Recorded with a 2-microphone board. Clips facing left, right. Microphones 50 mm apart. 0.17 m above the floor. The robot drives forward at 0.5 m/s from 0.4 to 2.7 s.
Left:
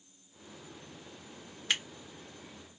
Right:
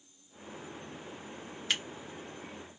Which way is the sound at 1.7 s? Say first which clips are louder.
Left 1 dB; 5° left (ahead or behind).